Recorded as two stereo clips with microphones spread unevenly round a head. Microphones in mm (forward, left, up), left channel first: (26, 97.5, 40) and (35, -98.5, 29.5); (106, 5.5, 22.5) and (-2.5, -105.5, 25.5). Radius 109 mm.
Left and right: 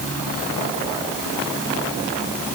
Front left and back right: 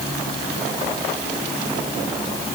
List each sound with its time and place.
Only background noise.